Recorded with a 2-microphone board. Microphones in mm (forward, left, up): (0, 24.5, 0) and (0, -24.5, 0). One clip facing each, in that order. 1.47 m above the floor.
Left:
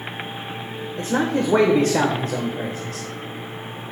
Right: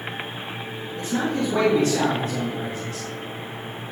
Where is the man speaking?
75° left (ahead or behind), 1.2 m.